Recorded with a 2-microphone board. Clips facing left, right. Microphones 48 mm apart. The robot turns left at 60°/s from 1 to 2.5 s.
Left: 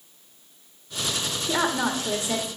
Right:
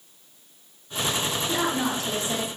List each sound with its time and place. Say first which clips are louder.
1.5 s a woman speaking: left 3 dB; 120° left, 1.3 m; by 2.5 s 65° left, 1.3 m